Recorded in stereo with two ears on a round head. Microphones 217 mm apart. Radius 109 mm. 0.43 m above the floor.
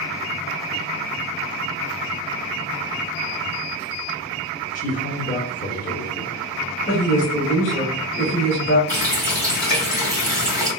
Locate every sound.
4.8 s a man speaking: 30° left (ahead or behind), 0.8 m
6.9 s a woman speaking: 35° left (ahead or behind), 1.6 m
8.9 s a running tap: 5° left (ahead or behind), 1.4 m